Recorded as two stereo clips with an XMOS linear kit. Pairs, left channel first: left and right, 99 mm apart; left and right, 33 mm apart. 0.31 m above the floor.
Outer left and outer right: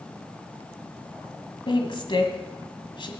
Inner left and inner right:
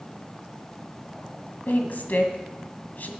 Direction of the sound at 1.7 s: 55° left (ahead or behind).